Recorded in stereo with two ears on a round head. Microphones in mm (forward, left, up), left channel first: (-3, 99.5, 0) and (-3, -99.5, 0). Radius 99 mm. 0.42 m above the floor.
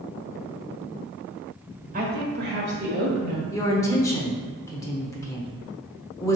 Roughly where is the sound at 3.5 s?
Centre.